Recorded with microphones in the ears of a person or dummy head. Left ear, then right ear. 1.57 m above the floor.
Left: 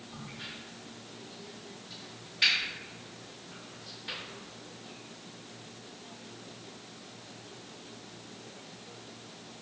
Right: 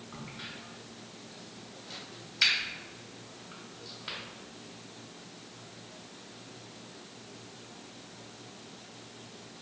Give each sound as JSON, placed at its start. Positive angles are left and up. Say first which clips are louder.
{"t": 0.1, "sound": "a crack", "louder": "even", "side_deg": -50, "distance_m": 1.7}